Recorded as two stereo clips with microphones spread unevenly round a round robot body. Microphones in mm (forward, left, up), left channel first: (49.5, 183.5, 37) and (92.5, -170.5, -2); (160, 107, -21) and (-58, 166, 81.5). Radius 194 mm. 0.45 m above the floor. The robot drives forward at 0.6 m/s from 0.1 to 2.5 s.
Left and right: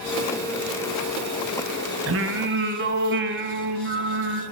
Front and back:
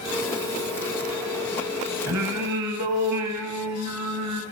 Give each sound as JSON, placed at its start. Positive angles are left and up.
{"t": 2.1, "sound": "singing", "azimuth_deg": -140, "distance_m": 1.2}